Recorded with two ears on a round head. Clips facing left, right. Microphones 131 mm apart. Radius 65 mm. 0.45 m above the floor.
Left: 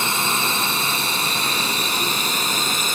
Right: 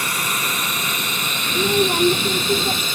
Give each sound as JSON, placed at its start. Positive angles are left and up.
{"t": 0.0, "sound": "a drone", "side_deg": 25}
{"t": 1.5, "sound": "a child speaking", "side_deg": -50}